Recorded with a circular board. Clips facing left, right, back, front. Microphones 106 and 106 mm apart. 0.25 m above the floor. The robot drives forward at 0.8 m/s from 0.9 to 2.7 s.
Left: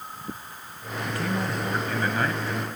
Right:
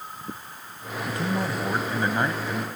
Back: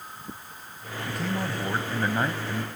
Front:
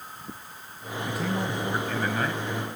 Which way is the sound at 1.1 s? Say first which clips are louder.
Right 1 dB, front 1 dB; 70° right.